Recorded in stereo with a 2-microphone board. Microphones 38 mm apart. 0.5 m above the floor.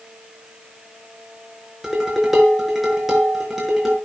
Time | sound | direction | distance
1.8 | dishes clattering | 5° right (ahead or behind) | 6 m